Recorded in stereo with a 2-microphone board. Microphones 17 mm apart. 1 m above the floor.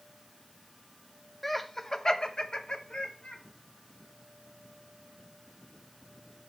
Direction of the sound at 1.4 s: 10° left (ahead or behind).